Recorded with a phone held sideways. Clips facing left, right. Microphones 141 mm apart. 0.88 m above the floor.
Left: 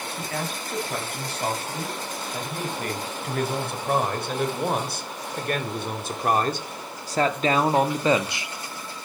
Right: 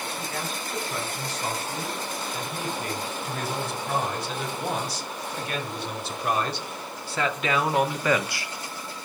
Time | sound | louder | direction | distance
0.2 | a man speaking | left 2 dB | 65° left (ahead or behind) | 7.5 m